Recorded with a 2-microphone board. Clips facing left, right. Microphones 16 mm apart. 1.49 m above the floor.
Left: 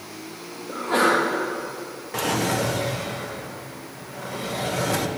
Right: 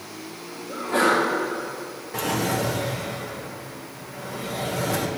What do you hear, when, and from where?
0.7 s a sneeze: 85° left, 2 m
2.1 s a drawer: 15° left (ahead or behind), 0.7 m